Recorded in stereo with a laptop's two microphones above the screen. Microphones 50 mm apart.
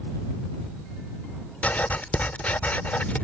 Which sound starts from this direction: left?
Writing, at 1.6 s.